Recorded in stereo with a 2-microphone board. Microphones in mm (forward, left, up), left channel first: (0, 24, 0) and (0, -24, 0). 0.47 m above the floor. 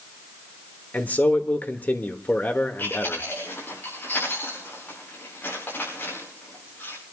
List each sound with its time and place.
0.9 s a man speaking: 40° left (ahead or behind), 1.4 m
2.8 s chewing: 45° left (ahead or behind), 8.5 m